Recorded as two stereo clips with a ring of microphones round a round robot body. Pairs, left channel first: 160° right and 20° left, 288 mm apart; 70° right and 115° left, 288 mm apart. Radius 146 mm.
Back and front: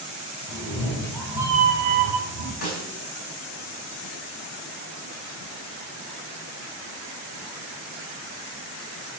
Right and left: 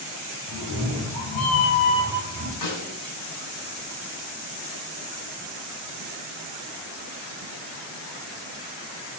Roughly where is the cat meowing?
Right.